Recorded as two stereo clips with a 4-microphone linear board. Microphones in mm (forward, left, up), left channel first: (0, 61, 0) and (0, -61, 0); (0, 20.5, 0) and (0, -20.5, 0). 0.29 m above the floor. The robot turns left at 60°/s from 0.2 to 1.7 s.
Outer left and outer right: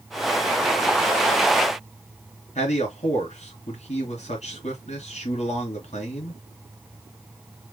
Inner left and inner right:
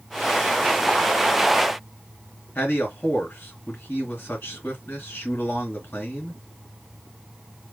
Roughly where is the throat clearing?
I don't hear throat clearing.